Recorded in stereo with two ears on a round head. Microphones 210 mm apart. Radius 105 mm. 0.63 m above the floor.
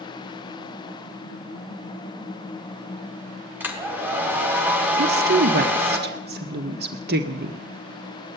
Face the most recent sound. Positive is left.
turn(degrees=-45)  # may be behind; listen again after turning